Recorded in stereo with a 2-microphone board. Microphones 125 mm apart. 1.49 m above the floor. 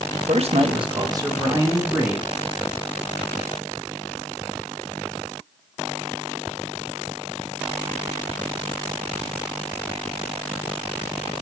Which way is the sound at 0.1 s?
65° right (ahead or behind).